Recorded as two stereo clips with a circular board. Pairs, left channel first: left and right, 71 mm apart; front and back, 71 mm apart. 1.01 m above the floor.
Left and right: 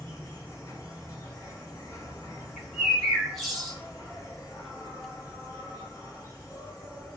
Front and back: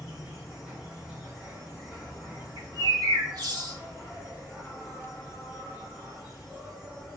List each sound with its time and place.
0.0 s an insect: 100° left, 1.6 m
2.6 s a bird: 175° right, 1.4 m